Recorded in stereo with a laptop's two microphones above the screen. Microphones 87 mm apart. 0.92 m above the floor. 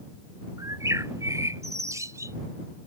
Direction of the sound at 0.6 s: 40° right (ahead or behind).